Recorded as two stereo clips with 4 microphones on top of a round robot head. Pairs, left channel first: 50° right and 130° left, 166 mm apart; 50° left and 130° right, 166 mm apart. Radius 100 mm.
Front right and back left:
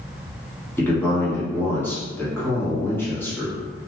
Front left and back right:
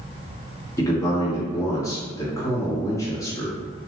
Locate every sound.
0.8 s a man speaking: 10° left, 1.3 m